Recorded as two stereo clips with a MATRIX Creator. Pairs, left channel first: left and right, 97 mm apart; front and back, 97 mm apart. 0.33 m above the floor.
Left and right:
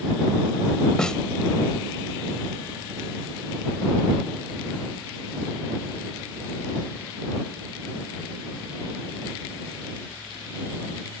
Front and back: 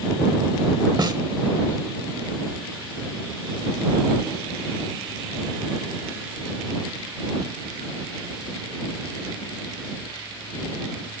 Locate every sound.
1.0 s a snare drum: 170° left